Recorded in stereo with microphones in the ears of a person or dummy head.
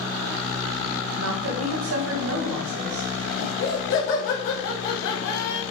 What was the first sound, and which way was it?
A woman speaking, 75° right (ahead or behind).